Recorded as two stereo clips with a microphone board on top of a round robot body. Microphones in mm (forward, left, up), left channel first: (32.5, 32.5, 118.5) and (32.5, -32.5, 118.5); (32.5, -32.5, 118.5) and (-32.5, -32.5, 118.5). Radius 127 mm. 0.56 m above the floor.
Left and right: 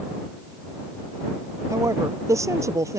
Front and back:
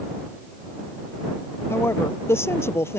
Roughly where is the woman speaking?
Ahead right.